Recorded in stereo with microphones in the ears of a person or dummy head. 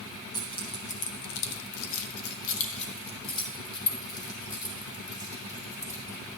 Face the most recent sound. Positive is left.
turn(degrees=15)  # may be behind; listen again after turning